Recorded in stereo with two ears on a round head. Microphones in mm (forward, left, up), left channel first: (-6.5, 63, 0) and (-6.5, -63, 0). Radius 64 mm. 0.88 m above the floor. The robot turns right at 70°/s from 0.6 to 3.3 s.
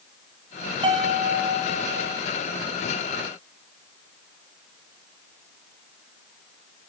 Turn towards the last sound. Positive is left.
turn(degrees=30)